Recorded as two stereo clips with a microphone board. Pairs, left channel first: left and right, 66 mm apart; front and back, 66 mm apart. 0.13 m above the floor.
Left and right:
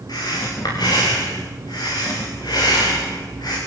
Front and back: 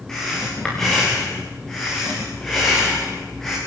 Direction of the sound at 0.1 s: 85° left.